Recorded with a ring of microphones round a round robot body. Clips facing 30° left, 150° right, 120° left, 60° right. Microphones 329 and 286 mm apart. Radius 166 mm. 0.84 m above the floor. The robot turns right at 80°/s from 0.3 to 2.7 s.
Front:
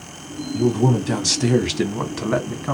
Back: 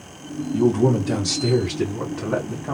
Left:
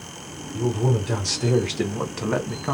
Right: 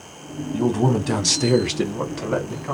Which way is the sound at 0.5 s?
85° right.